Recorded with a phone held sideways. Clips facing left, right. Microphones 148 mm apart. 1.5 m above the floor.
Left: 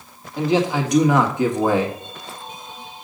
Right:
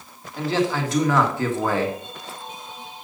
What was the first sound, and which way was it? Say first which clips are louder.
A man speaking: left 3 dB; 15° left (ahead or behind).